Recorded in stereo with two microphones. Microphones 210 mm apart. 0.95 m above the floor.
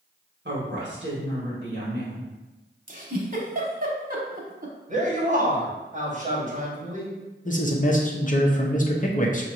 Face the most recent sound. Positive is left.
turn(degrees=40)  # may be behind; listen again after turning